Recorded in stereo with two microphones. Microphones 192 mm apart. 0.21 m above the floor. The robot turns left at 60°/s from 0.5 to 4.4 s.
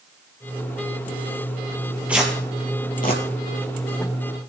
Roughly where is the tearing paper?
Centre.